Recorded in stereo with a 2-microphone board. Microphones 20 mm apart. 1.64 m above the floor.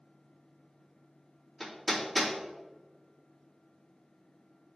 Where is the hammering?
5° left (ahead or behind), 2.5 m.